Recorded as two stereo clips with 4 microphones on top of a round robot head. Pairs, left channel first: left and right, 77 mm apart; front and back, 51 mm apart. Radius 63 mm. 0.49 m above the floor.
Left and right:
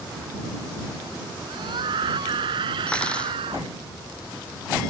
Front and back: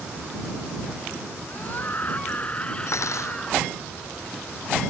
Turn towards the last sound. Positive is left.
turn(degrees=15)